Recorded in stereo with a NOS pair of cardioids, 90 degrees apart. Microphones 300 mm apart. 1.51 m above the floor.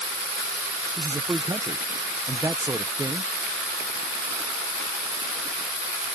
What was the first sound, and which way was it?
A man speaking, 10° right.